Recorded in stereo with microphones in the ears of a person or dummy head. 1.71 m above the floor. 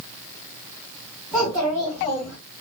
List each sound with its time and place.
1.3 s a child speaking: 10° left (ahead or behind), 1.6 m; by 2.4 s 35° left (ahead or behind), 1.5 m